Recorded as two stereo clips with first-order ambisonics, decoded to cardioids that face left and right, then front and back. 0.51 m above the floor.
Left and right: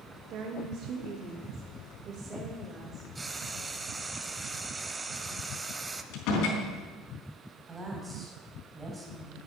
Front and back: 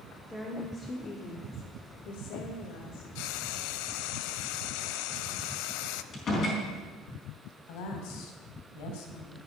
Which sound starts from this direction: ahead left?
A door slam, at 6.1 s.